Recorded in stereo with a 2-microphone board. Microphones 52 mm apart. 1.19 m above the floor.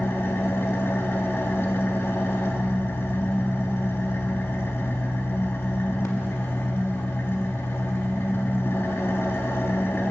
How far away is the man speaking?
I don't hear a man speaking.